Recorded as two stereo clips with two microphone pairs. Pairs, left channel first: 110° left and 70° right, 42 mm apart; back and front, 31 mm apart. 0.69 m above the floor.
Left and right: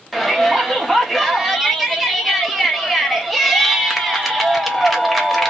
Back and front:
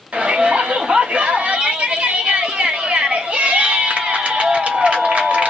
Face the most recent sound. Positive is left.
turn(degrees=25)